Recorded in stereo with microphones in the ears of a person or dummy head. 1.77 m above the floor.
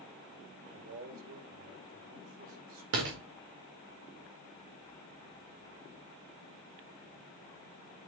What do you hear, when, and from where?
0.7 s a man speaking: 65° right (ahead or behind), 6 m
2.9 s a door slam: 45° right (ahead or behind), 1.2 m